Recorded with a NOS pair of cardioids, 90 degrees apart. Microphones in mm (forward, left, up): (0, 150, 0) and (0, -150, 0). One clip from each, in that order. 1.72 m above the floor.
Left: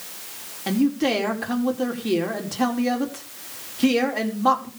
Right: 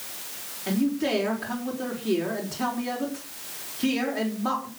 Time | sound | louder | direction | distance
0.7 | a man speaking | left 4 dB | 45° left | 5 m